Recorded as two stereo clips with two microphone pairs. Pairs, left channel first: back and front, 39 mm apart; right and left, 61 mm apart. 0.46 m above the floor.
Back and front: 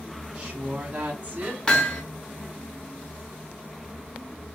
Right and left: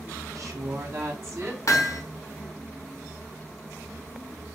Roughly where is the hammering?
Behind right.